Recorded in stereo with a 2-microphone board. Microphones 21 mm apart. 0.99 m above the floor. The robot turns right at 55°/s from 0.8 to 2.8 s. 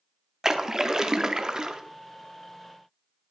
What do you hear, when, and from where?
0.4 s a splash: 130° right, 0.5 m; by 1.8 s 75° right, 0.5 m